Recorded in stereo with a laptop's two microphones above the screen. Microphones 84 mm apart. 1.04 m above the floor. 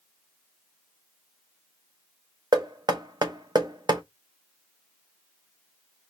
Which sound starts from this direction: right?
Knocking, at 2.5 s.